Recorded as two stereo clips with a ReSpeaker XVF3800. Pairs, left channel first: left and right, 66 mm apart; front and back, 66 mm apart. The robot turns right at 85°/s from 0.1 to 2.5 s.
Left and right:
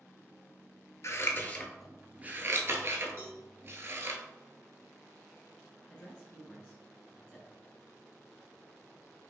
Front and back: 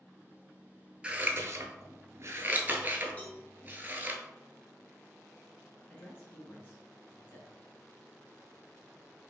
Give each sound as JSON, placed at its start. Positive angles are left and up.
{"t": 1.0, "sound": "scissors", "azimuth_deg": 110, "distance_m": 0.7}
{"t": 3.2, "sound": "a cowbell", "azimuth_deg": -65, "distance_m": 2.0}
{"t": 5.9, "sound": "a woman speaking", "azimuth_deg": 30, "distance_m": 1.2}